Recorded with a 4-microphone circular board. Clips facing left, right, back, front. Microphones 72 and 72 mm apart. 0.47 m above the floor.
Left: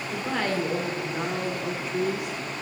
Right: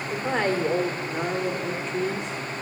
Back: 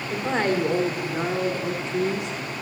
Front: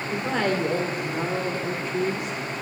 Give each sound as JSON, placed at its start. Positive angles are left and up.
{"t": 0.1, "sound": "a woman speaking", "azimuth_deg": -135, "distance_m": 1.6}